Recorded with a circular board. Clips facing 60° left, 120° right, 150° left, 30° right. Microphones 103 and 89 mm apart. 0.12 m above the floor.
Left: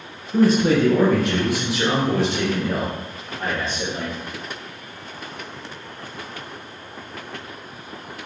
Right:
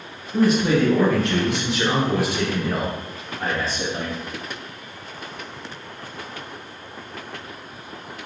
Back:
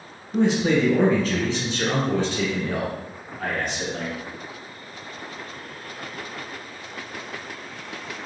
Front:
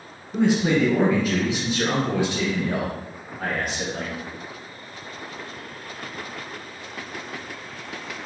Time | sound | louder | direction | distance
0.3 | a man speaking | left 2 dB, even | 50° left | 1.5 m